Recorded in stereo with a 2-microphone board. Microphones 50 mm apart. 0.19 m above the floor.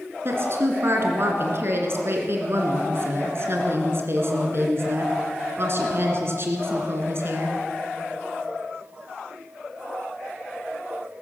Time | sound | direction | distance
0.2 | a woman speaking | 55° right (ahead or behind) | 2.5 m